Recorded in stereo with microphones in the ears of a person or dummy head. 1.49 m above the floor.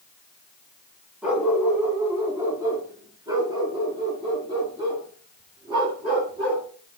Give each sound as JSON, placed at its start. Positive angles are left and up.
{"t": 1.2, "sound": "a dog barking", "side_deg": -5, "distance_m": 3.0}